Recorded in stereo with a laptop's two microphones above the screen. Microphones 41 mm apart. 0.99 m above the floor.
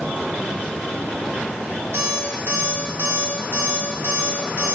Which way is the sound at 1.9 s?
75° right (ahead or behind).